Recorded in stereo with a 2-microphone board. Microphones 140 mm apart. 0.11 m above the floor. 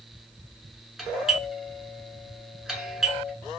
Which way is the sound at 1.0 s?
5° right (ahead or behind).